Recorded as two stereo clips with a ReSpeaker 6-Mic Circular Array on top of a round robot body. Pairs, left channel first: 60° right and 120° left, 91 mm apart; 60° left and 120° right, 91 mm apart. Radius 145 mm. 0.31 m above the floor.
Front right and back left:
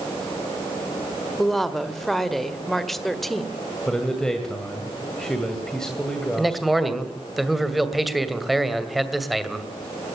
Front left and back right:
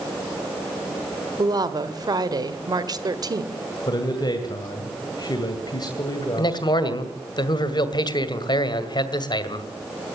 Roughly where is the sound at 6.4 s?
Ahead left.